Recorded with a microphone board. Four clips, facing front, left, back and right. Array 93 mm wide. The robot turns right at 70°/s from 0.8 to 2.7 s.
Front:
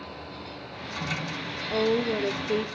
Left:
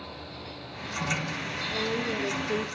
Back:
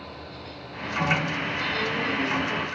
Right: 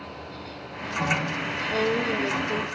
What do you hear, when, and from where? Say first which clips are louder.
1.7 s a woman speaking: right 6 dB, front 6 dB; 45° right, 0.9 m; by 2.7 s 25° left, 0.9 m